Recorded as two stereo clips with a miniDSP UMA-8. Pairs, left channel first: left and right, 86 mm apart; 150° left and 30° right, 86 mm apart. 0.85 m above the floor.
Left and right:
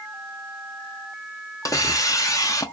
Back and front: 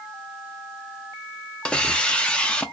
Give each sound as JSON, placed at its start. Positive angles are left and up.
{"t": 1.6, "sound": "a hiss", "azimuth_deg": 80, "distance_m": 0.8}